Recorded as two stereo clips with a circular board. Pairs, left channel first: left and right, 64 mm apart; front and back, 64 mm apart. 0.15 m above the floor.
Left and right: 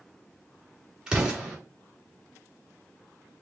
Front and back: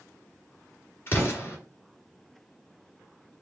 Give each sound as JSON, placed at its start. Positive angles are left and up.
{"t": 1.1, "sound": "an explosion", "azimuth_deg": -20, "distance_m": 1.7}